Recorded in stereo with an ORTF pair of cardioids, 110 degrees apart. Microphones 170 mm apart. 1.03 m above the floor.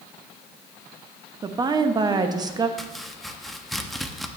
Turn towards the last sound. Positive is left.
turn(degrees=0)